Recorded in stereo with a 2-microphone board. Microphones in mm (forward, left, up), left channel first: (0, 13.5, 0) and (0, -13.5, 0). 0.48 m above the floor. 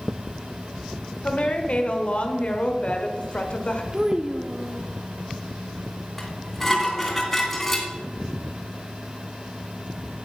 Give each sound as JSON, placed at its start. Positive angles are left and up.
{"t": 1.2, "sound": "a woman speaking", "side_deg": 50, "distance_m": 1.4}
{"t": 3.9, "sound": "a child speaking", "side_deg": -30, "distance_m": 0.6}
{"t": 6.2, "sound": "dishes clattering", "side_deg": 10, "distance_m": 3.0}